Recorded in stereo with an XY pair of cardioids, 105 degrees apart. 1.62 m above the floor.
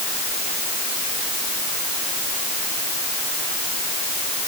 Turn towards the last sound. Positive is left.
No sound to turn to.